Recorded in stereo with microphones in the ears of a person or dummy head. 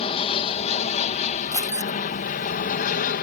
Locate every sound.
0.0 s an aircraft: 30° left (ahead or behind); by 3.2 s 45° left (ahead or behind)
1.5 s keys jangling: 15° left (ahead or behind)